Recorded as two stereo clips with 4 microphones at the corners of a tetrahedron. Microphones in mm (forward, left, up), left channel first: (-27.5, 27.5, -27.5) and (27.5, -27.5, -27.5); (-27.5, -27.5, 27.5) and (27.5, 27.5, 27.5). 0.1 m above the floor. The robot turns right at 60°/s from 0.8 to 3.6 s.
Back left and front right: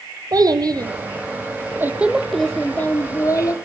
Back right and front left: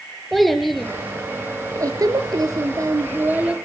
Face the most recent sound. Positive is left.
turn(degrees=120)